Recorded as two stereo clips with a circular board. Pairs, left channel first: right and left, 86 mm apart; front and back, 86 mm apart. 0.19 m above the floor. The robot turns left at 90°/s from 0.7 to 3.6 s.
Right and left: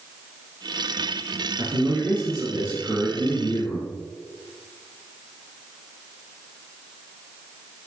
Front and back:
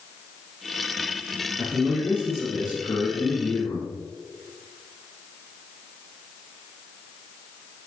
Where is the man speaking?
120° left, 2.5 m; by 3.9 s 60° right, 2.5 m.